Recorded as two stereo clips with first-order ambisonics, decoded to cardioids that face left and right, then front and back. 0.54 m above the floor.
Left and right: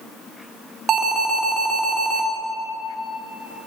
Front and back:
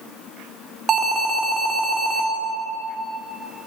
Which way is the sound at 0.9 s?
130° right.